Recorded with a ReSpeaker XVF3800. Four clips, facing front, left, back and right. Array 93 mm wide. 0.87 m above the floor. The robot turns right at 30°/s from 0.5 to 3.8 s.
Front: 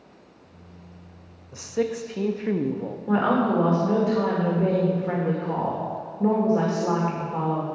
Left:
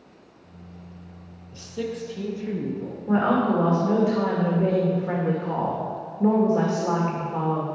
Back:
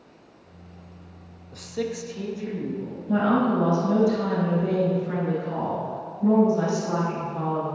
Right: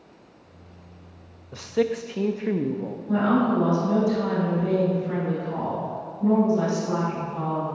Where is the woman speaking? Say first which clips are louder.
Left 1 dB, even; 25° left, 2.5 m; by 7.7 s 50° left, 2.5 m.